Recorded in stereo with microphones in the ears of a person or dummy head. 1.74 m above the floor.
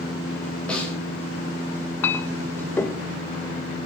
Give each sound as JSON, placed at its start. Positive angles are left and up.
{"t": 0.7, "sound": "a snare drum", "side_deg": 5, "distance_m": 9.5}
{"t": 2.0, "sound": "a clink", "side_deg": 15, "distance_m": 1.5}